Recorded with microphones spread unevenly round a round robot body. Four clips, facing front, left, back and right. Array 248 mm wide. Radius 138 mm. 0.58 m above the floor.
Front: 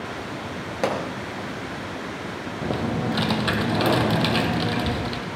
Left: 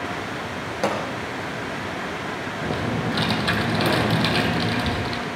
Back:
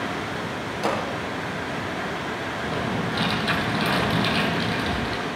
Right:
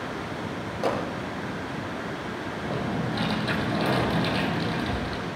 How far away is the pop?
About 6.5 m.